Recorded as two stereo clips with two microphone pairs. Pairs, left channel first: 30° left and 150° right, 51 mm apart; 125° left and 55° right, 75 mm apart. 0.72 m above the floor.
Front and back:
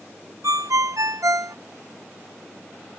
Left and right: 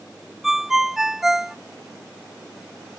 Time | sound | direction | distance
0.4 | a ringtone | 140° right | ?